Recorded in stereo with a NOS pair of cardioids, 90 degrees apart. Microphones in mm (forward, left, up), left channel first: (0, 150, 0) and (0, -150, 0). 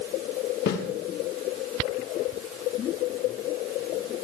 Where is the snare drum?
55° left, 4 m.